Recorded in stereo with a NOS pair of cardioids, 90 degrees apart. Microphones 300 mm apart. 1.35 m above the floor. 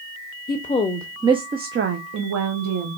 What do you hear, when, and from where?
0.5 s a woman speaking: 35° left, 0.7 m; by 3.0 s 65° right, 1.2 m